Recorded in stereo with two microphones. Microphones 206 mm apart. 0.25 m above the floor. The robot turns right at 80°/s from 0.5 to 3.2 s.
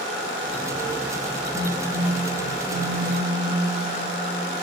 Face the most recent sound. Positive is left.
turn(degrees=-140)